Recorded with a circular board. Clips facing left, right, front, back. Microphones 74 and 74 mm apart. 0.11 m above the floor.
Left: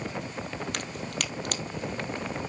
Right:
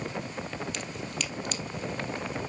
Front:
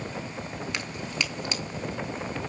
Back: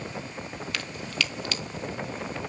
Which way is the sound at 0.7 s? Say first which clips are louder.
Left 1 dB, back 2 dB; 65° left.